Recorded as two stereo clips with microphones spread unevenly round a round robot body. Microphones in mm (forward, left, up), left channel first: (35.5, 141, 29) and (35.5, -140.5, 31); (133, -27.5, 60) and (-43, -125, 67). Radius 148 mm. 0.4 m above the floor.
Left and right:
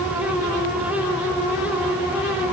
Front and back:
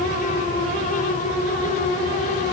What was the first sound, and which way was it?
Only background noise.